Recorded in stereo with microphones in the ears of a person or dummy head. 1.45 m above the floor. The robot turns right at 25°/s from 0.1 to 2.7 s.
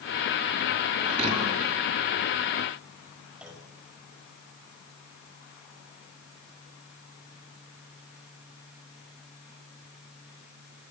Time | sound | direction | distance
1.0 | a thud | 40° right (ahead or behind) | 8 m
3.4 | a clunk | centre (ahead or behind) | 5.5 m